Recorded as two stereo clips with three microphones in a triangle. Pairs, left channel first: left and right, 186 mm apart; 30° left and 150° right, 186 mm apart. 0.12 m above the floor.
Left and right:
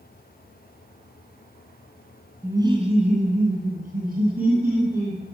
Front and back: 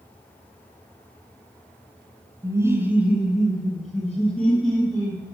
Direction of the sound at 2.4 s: 140° right.